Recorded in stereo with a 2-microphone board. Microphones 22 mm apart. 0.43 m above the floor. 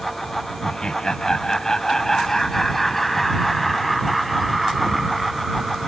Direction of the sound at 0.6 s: 40° left (ahead or behind).